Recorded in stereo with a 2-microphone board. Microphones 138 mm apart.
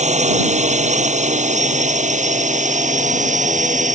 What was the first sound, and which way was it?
A drone, 60° right (ahead or behind).